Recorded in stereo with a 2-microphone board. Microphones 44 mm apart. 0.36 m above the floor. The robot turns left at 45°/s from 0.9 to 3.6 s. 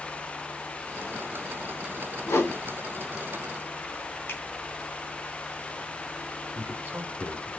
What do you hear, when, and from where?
2.3 s a whoosh: 80° left, 1.1 m
4.3 s a finger snap: 55° left (ahead or behind), 2.5 m
6.5 s a man speaking: 60° right (ahead or behind), 1.4 m